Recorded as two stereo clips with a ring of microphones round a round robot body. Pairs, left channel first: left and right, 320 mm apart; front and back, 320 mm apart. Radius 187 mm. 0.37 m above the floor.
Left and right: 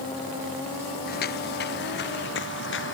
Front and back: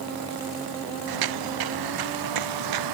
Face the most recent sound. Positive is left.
turn(degrees=150)